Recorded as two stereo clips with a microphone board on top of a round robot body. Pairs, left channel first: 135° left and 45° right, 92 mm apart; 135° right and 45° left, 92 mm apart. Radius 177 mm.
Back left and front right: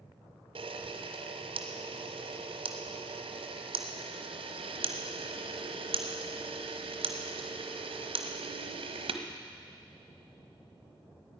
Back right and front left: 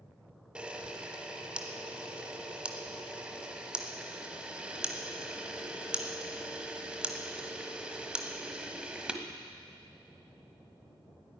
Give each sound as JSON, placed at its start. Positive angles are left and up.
{"t": 0.6, "sound": "a camera shutter", "azimuth_deg": -35, "distance_m": 1.1}